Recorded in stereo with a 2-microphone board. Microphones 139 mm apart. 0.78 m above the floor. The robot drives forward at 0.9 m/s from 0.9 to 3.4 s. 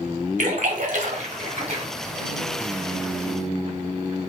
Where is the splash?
70° right (ahead or behind), 1.3 m; by 1.8 s 45° right (ahead or behind), 1.7 m.